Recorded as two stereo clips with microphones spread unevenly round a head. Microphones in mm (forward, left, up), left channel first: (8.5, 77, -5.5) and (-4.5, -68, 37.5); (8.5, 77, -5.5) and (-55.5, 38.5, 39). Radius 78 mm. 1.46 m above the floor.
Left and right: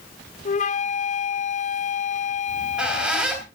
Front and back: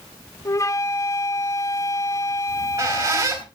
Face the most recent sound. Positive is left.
turn(degrees=-170)